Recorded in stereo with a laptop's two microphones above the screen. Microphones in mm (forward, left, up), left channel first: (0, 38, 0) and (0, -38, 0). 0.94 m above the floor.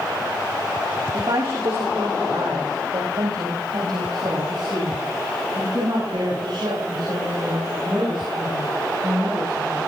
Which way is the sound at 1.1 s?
70° right (ahead or behind).